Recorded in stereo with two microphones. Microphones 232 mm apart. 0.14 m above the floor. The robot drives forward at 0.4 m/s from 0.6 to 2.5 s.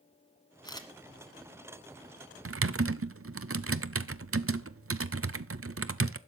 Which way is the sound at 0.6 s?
15° left (ahead or behind).